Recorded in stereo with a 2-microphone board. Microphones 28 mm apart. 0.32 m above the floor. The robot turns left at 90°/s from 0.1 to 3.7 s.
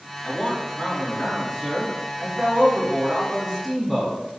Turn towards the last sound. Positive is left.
turn(degrees=-175)